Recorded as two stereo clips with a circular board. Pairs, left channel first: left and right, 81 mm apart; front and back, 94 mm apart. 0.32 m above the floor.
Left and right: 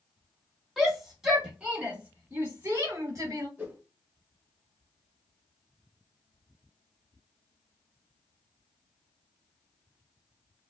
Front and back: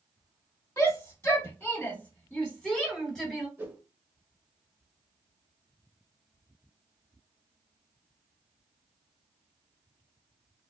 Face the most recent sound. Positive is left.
turn(degrees=-140)